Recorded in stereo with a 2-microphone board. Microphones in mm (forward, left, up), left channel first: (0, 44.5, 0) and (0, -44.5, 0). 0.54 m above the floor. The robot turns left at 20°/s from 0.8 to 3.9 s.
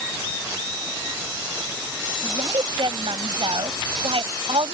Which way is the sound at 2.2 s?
65° right.